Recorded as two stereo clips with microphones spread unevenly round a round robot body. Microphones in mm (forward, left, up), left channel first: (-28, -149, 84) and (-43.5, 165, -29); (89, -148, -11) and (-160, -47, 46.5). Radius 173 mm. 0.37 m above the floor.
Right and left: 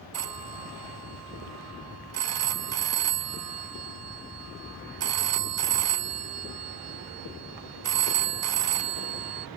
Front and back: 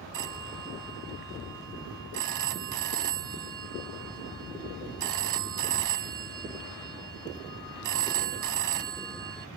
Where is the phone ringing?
120° left.